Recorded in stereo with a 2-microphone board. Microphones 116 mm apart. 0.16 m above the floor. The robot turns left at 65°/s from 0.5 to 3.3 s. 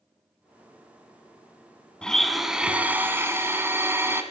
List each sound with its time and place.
2.0 s a blender: 10° left (ahead or behind), 0.9 m; by 4.2 s 20° right (ahead or behind), 0.9 m